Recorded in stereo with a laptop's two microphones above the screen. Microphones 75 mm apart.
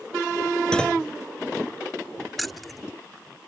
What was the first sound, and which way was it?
A clunk, 10° left (ahead or behind).